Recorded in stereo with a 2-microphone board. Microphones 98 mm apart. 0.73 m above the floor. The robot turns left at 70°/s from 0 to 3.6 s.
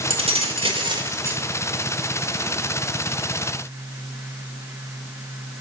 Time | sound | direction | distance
0.1 | keys jangling | 70° right | 1.4 m